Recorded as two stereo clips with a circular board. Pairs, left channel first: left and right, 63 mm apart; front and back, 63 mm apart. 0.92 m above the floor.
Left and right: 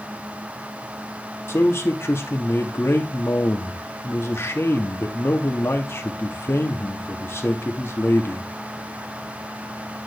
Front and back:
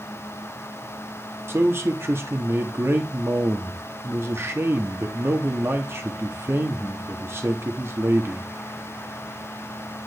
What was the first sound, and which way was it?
A man speaking, 135° left.